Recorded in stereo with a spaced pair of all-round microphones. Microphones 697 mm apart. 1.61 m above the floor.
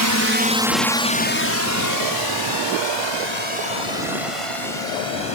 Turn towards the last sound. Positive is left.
turn(degrees=50)  # may be behind; listen again after turning